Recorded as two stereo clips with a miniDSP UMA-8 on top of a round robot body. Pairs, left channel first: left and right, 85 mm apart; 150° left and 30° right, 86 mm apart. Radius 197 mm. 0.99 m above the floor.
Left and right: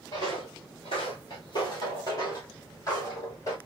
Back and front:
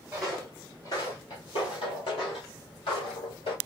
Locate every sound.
0.1 s footsteps: 45° left, 1.1 m; by 3.6 s 145° left, 3 m